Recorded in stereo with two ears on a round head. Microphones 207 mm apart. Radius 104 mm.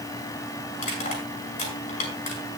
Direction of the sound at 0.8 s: 35° left (ahead or behind).